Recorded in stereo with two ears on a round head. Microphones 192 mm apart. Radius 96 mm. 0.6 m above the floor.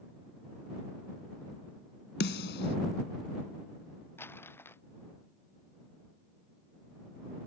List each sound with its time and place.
2.2 s a snare drum: 55° left (ahead or behind)
4.2 s crumpling: 10° left (ahead or behind)